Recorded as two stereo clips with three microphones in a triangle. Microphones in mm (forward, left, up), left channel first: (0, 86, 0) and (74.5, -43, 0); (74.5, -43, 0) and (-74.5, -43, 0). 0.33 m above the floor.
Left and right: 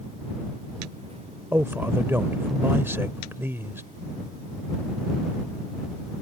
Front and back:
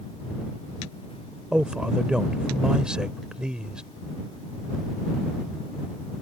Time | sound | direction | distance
1.5 | a man speaking | 105° right | ?